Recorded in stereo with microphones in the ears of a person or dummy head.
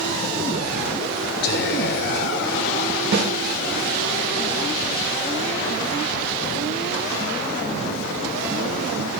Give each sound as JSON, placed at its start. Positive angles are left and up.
{"t": 1.4, "sound": "whispering", "side_deg": 60, "distance_m": 7.0}
{"t": 3.1, "sound": "a snare drum", "side_deg": -60, "distance_m": 9.5}